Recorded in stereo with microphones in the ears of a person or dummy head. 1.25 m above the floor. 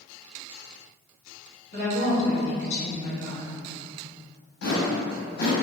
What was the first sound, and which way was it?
A woman speaking, 40° left (ahead or behind).